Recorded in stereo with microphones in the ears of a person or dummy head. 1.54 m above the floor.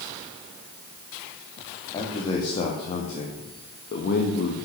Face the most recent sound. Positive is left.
turn(degrees=55)  # may be behind; listen again after turning